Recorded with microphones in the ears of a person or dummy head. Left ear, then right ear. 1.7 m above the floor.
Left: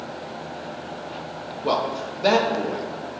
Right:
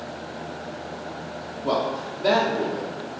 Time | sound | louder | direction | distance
1.6 | a man speaking | left 1 dB | 75° left (ahead or behind) | 1.3 m